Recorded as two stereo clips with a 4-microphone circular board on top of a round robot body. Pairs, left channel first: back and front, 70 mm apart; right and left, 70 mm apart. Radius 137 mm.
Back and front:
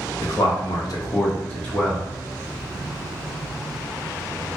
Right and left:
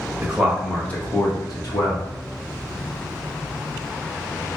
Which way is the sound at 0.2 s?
160° left.